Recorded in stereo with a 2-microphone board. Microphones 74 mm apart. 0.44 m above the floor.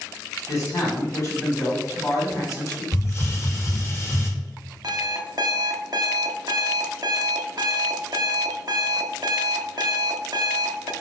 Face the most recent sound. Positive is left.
turn(degrees=-55)  # may be behind; listen again after turning